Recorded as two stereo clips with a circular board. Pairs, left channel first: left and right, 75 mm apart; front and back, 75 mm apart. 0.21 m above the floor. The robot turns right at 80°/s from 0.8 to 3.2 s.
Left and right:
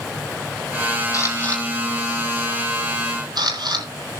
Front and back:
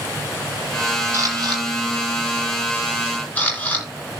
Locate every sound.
1.1 s a camera shutter: 125° left, 5 m; by 3.9 s 70° right, 5 m